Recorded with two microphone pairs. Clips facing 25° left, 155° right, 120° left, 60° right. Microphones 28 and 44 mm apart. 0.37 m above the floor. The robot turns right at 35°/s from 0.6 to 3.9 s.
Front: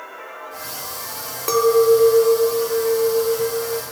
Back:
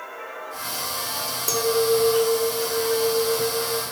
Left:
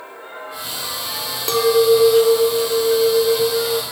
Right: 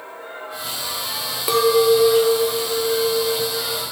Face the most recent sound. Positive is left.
turn(degrees=90)